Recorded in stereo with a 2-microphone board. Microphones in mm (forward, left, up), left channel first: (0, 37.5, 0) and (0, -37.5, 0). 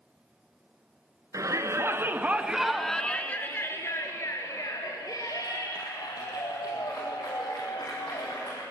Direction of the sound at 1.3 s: 50° right (ahead or behind).